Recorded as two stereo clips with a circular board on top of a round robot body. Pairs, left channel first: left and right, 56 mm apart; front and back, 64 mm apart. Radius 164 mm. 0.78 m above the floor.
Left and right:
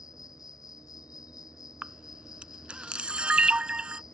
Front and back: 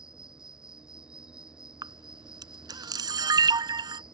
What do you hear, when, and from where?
0.0 s an insect: 100° left
1.8 s a camera shutter: 165° right